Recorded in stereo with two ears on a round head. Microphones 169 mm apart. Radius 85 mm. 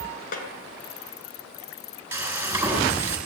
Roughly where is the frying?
Centre.